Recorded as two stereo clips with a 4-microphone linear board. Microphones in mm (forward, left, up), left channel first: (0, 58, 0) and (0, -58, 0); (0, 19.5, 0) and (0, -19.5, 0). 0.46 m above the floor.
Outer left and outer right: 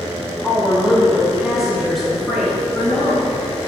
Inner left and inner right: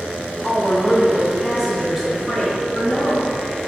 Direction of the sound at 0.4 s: 10° right (ahead or behind).